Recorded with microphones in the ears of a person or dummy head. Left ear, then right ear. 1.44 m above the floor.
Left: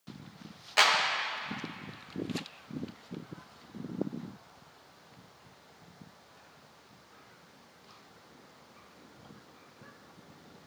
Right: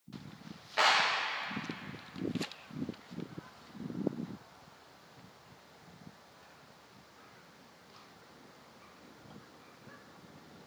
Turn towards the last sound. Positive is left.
turn(degrees=85)